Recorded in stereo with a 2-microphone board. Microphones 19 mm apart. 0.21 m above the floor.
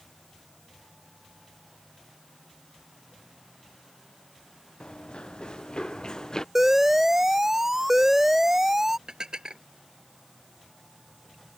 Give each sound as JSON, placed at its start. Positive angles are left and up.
{"t": 4.8, "sound": "running footsteps", "side_deg": 70}
{"t": 6.5, "sound": "an alarm", "side_deg": -20}
{"t": 9.1, "sound": "dishes clattering", "side_deg": -45}